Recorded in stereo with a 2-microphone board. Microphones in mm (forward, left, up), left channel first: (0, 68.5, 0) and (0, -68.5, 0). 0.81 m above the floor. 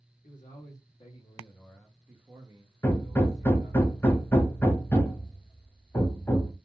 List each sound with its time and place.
0.2 s a man speaking: 65° left (ahead or behind), 1.0 m; by 3.8 s 60° right (ahead or behind), 1.2 m
2.8 s hammering: 15° left (ahead or behind), 0.7 m